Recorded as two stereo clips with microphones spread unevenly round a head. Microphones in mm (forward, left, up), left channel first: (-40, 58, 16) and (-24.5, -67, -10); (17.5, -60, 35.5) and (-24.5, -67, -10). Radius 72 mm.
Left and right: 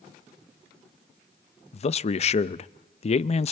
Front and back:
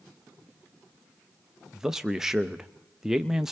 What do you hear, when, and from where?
1.7 s a man speaking: 140° left, 0.5 m